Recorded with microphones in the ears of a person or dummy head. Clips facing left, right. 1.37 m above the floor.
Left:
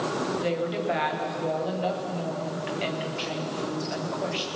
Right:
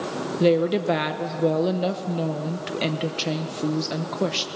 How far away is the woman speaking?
About 1.0 m.